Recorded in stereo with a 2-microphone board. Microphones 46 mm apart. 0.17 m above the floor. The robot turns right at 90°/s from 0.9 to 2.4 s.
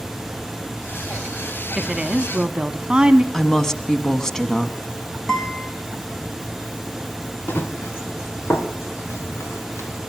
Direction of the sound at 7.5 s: 45° left (ahead or behind).